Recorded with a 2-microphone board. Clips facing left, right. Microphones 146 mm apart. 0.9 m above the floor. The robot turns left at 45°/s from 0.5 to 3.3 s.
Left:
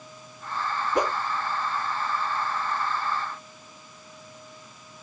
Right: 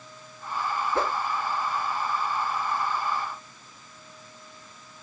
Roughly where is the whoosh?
Centre.